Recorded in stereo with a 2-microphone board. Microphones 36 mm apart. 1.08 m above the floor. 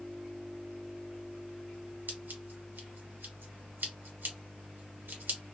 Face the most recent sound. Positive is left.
turn(degrees=-75)  # may be behind; listen again after turning